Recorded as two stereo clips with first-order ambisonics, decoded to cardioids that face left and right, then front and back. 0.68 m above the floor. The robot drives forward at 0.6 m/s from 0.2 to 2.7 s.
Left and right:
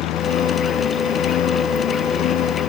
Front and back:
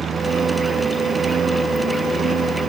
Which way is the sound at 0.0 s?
115° left.